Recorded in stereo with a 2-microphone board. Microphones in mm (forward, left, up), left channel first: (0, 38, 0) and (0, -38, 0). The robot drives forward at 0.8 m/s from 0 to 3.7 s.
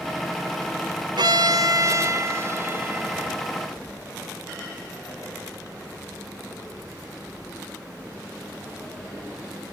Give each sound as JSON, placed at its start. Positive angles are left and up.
{"t": 1.2, "sound": "a violin", "side_deg": -70, "distance_m": 1.1}